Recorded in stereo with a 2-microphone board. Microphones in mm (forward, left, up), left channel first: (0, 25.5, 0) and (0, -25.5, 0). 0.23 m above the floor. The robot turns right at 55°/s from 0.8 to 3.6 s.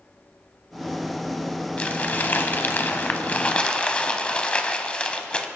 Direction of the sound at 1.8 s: 45° left.